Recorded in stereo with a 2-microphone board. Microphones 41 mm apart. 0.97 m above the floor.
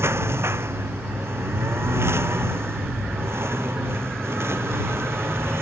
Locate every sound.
0.0 s a lawn mower: 90° right; by 5.6 s 80° right